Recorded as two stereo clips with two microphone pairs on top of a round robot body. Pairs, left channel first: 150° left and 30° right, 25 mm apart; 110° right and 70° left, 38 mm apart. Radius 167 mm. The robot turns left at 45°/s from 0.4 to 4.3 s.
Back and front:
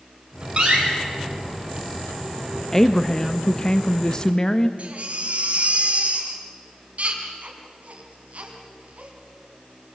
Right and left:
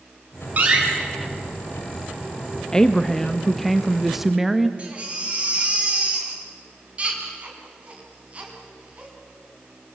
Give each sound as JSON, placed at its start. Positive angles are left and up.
{"t": 0.6, "sound": "a door slam", "azimuth_deg": 15, "distance_m": 4.0}
{"t": 2.7, "sound": "a woman speaking", "azimuth_deg": -150, "distance_m": 1.2}
{"t": 4.8, "sound": "a baby crying", "azimuth_deg": 10, "distance_m": 3.0}